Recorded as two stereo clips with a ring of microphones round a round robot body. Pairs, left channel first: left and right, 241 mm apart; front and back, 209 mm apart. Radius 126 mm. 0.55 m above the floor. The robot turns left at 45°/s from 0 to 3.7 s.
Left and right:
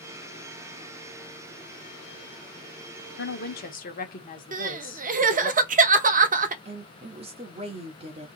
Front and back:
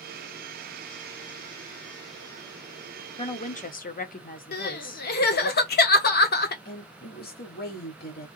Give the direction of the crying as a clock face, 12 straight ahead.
1 o'clock.